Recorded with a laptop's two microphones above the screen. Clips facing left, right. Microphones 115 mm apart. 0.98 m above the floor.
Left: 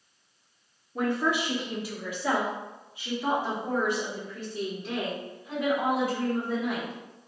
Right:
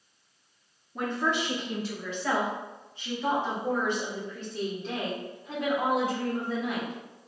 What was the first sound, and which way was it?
A woman speaking, 5° left (ahead or behind).